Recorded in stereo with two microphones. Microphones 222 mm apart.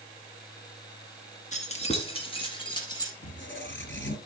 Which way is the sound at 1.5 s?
30° left (ahead or behind).